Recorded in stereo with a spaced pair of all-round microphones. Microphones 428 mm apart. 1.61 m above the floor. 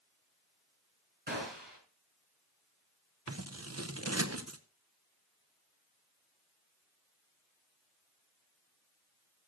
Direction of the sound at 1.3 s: 70° right (ahead or behind).